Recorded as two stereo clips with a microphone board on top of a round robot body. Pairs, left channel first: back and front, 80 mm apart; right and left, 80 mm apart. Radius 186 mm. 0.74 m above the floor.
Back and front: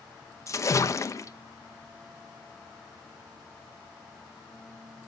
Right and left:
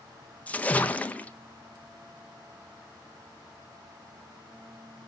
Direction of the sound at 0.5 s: 155° right.